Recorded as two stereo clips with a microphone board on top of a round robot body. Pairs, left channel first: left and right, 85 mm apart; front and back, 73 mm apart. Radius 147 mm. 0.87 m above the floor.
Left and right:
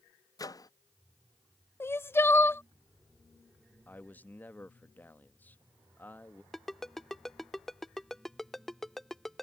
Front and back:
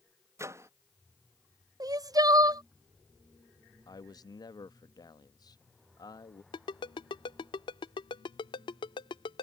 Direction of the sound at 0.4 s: 130° left.